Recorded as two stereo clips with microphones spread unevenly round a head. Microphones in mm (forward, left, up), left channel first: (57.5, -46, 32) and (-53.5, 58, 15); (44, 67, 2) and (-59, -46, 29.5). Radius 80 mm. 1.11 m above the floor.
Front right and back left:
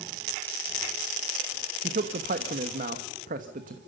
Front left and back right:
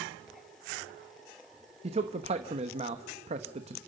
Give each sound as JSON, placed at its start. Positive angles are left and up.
{"t": 1.8, "sound": "a man speaking", "azimuth_deg": 175, "distance_m": 1.1}